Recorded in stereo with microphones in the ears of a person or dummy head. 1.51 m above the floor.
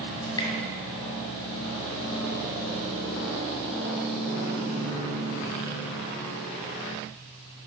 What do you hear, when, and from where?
0.2 s dripping: 20° left (ahead or behind), 2 m